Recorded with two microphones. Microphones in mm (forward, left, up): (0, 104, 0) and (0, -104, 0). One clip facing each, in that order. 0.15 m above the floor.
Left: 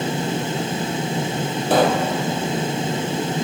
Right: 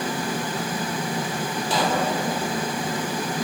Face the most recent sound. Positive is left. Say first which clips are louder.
# left 7 dB
turn(degrees=65)  # may be behind; listen again after turning